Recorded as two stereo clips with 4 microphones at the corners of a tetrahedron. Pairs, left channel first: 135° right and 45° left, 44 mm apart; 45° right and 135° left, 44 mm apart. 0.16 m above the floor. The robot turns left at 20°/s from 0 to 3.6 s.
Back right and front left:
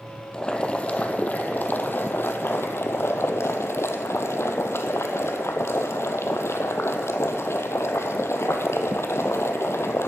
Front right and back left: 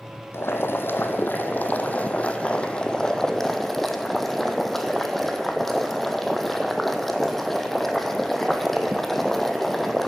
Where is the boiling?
65° right, 0.8 m; by 10.1 s 130° right, 0.8 m.